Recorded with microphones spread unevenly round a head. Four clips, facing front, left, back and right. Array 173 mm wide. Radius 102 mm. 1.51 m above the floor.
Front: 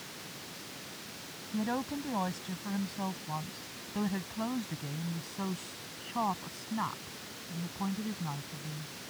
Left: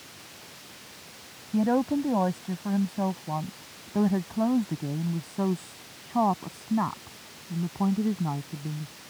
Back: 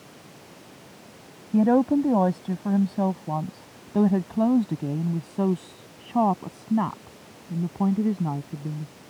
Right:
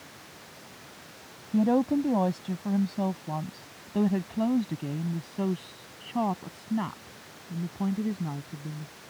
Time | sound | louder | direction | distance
1.5 | a woman speaking | right 1 dB, back 15 dB | 175° right | ?